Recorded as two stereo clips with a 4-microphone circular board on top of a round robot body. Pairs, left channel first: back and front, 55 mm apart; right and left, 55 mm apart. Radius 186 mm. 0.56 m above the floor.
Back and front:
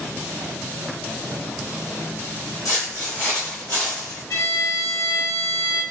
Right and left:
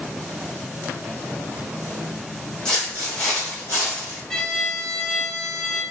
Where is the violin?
170° right, 1.1 m.